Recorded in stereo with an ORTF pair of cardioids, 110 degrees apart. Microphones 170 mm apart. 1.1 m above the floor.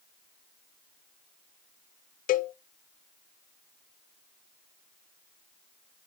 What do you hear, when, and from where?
2.3 s a cowbell: 55° left, 0.6 m